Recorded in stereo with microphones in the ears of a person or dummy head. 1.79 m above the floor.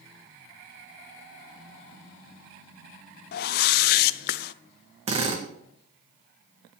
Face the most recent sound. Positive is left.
turn(degrees=-35)  # may be behind; listen again after turning